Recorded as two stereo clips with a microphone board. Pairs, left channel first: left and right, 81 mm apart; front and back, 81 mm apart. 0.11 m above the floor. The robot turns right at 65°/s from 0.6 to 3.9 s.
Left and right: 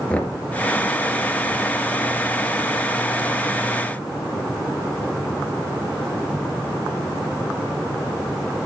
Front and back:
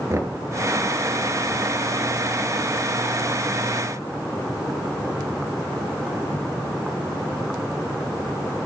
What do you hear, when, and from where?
0.1 s knocking: 155° left, 1.1 m